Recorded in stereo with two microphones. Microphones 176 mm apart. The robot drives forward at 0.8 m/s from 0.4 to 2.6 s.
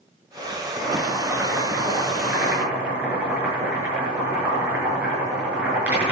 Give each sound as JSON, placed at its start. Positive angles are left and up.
{"t": 0.8, "sound": "boiling", "side_deg": -10, "distance_m": 6.0}